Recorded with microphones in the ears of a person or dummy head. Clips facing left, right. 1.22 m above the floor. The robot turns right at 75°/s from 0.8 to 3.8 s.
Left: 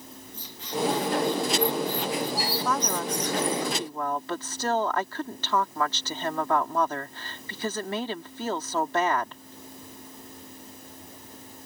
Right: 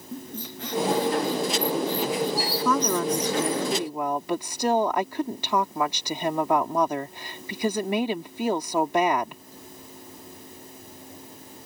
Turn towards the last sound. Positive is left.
turn(degrees=-15)